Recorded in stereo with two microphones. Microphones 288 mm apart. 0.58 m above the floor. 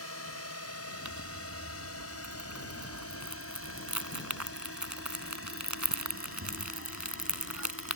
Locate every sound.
0.0 s a drone: 60° left (ahead or behind); by 8.0 s 50° left (ahead or behind)
1.1 s crumpling: 80° right